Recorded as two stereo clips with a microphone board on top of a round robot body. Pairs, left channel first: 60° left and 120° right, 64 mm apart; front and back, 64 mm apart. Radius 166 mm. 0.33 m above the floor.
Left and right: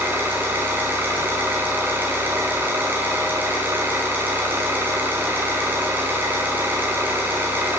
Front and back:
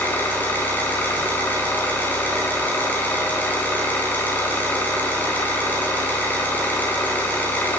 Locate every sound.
0.0 s an engine running: 60° right, 3 m